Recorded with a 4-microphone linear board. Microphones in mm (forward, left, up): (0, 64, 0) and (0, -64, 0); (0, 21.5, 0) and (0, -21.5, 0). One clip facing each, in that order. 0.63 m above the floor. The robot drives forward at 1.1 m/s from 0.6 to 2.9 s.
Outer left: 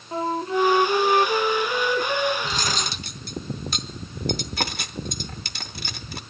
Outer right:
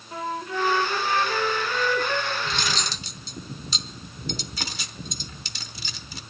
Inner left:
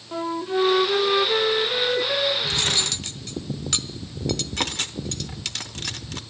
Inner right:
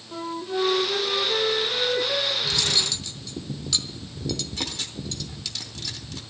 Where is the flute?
30° left (ahead or behind), 0.8 m; by 2.3 s 15° left (ahead or behind), 1.6 m.